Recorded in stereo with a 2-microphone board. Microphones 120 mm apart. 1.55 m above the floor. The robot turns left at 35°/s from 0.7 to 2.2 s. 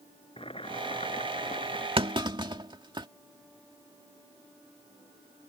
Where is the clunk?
50° right (ahead or behind); by 3.1 s 40° right (ahead or behind).